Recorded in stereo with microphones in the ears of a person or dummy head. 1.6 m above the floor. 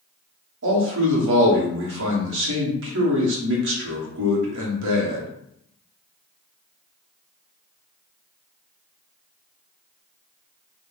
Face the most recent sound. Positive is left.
turn(degrees=-70)  # may be behind; listen again after turning